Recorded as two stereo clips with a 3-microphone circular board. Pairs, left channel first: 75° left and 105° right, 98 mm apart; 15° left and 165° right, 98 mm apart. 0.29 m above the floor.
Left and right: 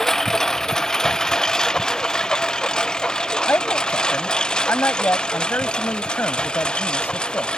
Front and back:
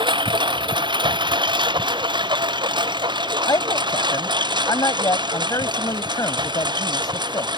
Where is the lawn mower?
160° left; by 7.6 s 155° left.